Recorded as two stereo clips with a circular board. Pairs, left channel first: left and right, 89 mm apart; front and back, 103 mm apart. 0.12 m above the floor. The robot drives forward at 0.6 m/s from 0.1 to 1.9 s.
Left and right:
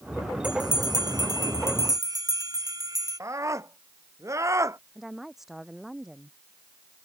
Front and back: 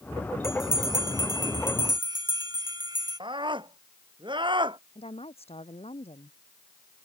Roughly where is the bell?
Behind right.